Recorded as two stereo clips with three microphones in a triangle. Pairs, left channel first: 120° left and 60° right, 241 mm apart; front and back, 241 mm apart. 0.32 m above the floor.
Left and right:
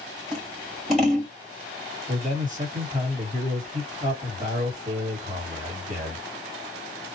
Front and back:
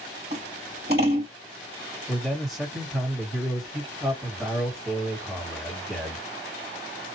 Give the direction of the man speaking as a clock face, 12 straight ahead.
3 o'clock.